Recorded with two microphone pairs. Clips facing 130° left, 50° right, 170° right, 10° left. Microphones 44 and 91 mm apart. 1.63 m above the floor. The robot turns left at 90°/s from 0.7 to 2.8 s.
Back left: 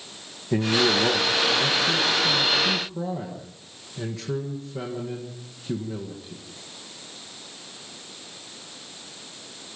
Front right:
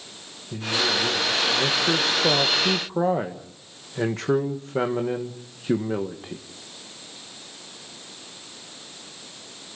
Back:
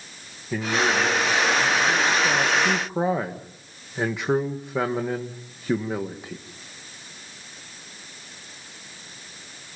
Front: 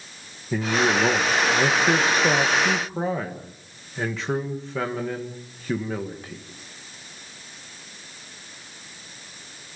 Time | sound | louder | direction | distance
0.5 | a man speaking | back left 4 dB, front 1 dB | 95° left | 1.7 m